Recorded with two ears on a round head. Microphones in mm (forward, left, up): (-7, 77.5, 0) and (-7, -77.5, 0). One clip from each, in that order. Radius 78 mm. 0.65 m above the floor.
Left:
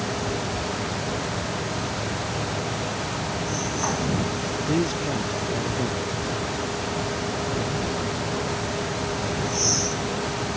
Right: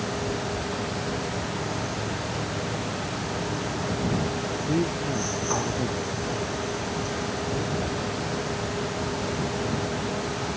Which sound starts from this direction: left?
A man speaking, at 4.6 s.